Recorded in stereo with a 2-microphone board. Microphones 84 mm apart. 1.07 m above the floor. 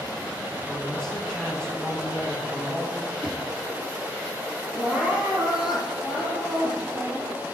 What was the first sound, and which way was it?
A man speaking, 10° left (ahead or behind).